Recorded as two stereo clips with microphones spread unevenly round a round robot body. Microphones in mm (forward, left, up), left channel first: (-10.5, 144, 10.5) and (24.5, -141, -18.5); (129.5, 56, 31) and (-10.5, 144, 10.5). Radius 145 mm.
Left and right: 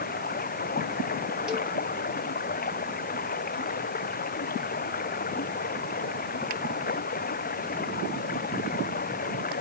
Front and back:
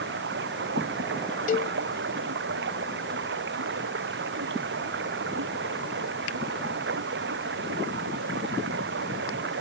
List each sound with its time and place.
0.0 s running water: 160° left
1.5 s a cowbell: 5° left